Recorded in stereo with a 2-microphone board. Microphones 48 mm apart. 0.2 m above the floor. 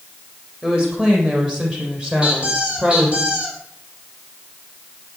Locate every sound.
0.6 s a woman speaking: 20° right (ahead or behind), 8.5 m; by 3.2 s 25° right (ahead or behind), 6 m
2.2 s a squeak: 20° right (ahead or behind), 4.5 m